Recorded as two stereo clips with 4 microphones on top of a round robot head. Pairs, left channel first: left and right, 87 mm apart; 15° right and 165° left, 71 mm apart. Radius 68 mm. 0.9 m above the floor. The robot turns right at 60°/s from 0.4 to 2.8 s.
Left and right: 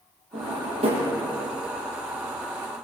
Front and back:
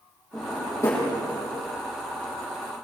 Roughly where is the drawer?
Right.